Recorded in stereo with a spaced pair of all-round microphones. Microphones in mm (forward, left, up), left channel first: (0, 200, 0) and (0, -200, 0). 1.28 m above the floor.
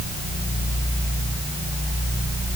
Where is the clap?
I don't hear a clap.